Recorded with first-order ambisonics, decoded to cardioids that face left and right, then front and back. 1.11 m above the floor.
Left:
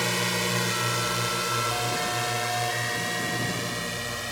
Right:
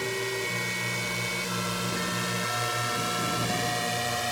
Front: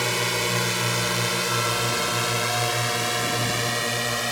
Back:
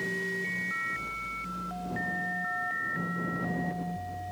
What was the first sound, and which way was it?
A drone, 25° left.